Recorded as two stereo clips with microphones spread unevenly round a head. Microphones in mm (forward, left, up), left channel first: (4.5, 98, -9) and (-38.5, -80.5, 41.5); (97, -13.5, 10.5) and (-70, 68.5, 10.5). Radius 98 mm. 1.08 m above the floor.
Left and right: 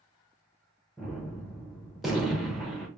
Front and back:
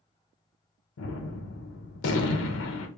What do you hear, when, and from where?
1.0 s a gunshot: 10° right, 0.8 m